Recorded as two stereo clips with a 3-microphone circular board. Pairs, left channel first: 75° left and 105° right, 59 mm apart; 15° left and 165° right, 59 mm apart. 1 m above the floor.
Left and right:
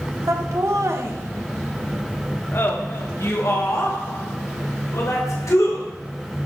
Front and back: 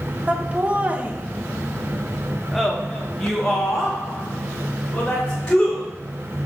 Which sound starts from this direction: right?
Laughter, at 0.3 s.